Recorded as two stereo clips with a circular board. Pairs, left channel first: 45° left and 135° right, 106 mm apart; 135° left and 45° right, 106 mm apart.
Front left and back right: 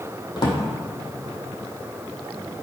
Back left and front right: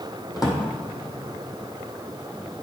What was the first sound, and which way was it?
A drawer, 85° left.